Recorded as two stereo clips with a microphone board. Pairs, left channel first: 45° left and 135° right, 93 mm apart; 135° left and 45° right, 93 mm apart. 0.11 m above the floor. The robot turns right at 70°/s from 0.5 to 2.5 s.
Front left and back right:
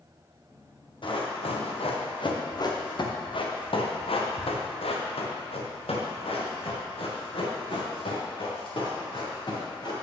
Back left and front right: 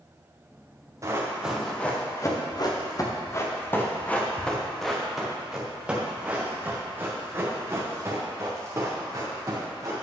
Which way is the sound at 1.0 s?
10° left.